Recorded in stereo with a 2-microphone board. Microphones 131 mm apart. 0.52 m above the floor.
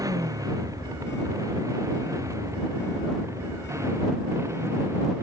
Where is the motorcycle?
25° right (ahead or behind); by 5.2 s 20° right (ahead or behind).